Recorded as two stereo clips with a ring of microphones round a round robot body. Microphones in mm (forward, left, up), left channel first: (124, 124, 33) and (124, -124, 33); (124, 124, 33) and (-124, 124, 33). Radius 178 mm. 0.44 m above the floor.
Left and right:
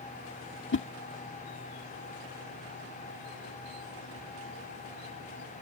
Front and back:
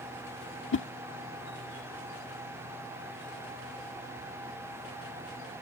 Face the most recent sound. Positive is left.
turn(degrees=45)